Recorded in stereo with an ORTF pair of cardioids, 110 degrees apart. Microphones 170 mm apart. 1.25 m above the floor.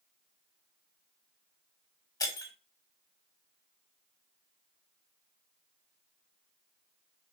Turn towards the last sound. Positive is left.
turn(degrees=25)